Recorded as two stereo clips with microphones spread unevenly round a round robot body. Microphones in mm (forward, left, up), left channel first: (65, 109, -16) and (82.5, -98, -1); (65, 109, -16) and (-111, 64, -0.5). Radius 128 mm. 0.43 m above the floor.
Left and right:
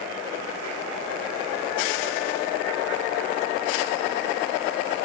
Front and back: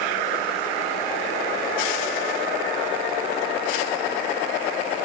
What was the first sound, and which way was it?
Only background noise.